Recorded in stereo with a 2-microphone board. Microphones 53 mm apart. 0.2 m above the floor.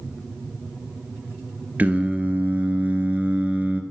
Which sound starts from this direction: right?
Singing, at 1.8 s.